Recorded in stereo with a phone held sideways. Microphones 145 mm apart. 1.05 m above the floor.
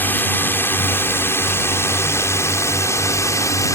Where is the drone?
15° left (ahead or behind); by 3.8 s 20° left (ahead or behind).